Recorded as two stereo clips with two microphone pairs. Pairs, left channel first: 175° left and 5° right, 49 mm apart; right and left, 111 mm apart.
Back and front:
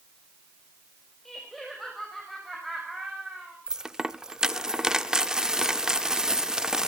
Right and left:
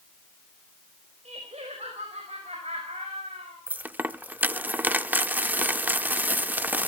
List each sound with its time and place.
1.2 s laughter: 90° left, 4 m; by 3.6 s 80° left, 5.5 m
3.7 s a dropped coin: 40° left, 0.6 m